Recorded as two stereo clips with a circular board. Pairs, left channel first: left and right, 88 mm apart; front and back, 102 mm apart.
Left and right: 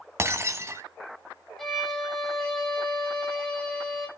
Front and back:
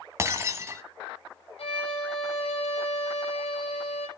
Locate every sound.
0.2 s breaking glass: 130° right, 1.2 m
1.6 s a violin: 5° left, 6.5 m